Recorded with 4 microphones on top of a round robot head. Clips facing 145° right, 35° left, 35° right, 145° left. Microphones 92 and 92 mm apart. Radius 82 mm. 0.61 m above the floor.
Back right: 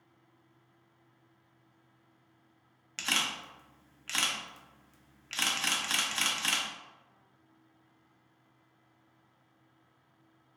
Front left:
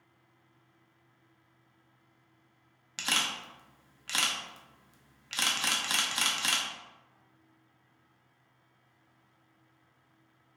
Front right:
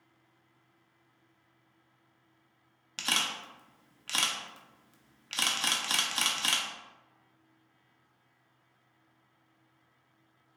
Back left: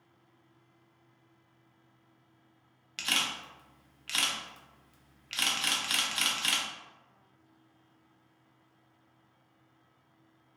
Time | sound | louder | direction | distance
3.0 | a camera shutter | front left 1 dB, front right 1 dB | 30° right | 0.7 m